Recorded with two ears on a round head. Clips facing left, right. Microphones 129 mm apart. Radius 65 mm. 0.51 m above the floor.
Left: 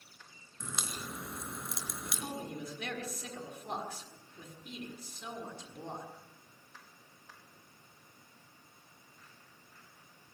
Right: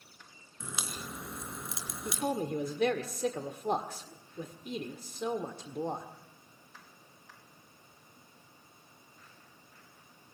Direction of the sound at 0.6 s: 5° right (ahead or behind).